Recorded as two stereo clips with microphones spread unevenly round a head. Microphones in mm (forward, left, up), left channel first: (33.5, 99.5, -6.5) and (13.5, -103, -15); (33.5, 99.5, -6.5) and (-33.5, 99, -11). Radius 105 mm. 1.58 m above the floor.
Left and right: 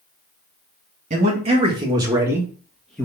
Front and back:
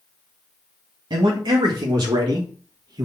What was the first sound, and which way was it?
A man speaking, 155° right.